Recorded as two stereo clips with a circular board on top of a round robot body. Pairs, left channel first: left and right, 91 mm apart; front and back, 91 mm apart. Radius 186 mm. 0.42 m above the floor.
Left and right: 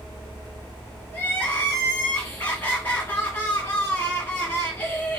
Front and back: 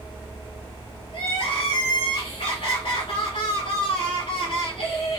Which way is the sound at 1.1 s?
20° left.